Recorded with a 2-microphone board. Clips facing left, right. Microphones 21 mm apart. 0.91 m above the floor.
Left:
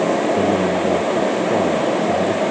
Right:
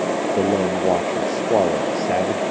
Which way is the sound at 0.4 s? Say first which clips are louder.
Left 2 dB; 60° right (ahead or behind).